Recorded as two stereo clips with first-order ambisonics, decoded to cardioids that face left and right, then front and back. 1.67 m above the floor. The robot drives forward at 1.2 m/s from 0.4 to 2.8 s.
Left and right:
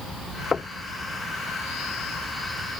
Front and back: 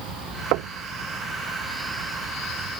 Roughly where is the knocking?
Behind.